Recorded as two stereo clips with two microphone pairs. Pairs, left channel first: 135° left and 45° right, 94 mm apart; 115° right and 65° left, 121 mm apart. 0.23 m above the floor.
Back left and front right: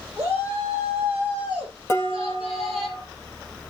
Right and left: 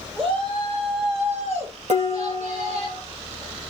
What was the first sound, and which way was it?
A shout, 20° left.